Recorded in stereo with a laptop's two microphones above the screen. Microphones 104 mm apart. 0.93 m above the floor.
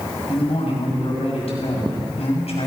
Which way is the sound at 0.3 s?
75° left (ahead or behind).